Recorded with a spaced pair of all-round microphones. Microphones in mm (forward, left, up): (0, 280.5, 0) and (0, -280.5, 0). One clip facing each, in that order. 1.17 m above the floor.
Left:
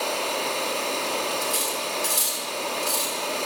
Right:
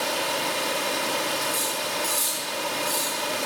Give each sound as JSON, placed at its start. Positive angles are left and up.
{"t": 0.0, "sound": "running water", "side_deg": -40, "distance_m": 1.9}
{"t": 1.4, "sound": "cutlery clinking", "side_deg": 85, "distance_m": 8.0}